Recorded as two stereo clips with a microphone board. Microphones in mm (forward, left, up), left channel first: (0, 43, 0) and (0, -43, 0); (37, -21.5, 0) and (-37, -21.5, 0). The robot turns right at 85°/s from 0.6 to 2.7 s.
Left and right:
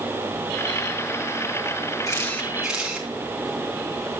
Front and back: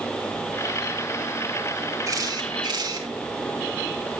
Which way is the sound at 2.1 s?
135° left.